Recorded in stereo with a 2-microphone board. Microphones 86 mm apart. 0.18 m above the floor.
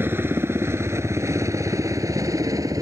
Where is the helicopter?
25° right (ahead or behind); by 2.8 s 40° right (ahead or behind).